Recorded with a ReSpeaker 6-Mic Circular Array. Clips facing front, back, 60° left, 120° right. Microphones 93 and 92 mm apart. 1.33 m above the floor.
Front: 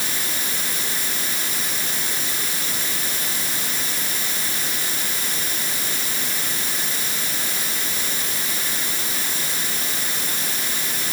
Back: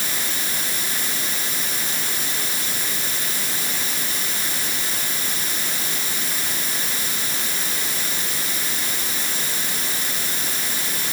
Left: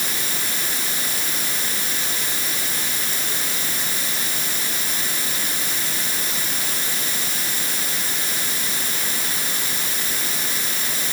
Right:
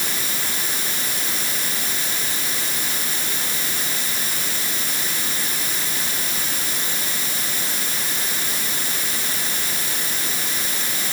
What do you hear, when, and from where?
Only background noise.